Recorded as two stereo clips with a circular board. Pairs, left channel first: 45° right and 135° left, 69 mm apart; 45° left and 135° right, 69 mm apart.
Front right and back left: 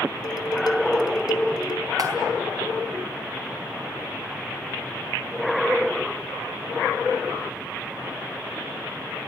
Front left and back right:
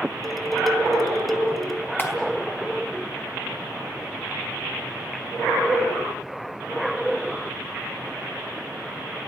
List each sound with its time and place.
0.2 s dishes clattering: 45° right, 1.7 m
2.0 s a clap: 105° left, 4.5 m